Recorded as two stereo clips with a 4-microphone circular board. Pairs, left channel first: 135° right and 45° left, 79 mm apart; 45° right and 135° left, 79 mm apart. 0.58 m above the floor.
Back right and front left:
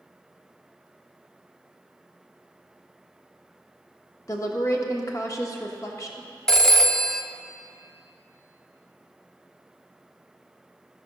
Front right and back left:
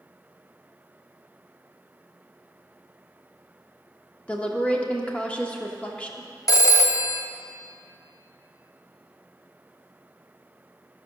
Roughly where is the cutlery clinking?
I don't hear cutlery clinking.